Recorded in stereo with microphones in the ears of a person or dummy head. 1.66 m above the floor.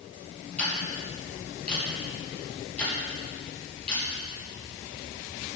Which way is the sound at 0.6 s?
5° left (ahead or behind).